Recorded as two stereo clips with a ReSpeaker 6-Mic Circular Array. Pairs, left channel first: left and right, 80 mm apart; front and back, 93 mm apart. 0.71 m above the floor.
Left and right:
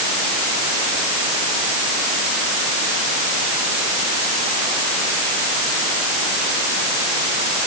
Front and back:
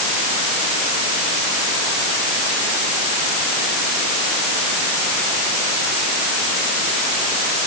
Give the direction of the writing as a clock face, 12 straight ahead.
I don't hear writing.